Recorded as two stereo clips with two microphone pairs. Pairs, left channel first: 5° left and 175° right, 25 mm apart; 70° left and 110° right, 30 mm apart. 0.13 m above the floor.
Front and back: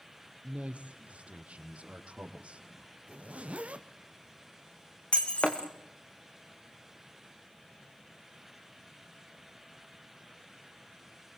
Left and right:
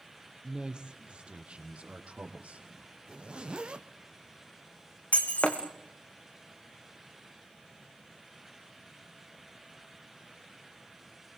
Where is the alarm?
No alarm in this recording.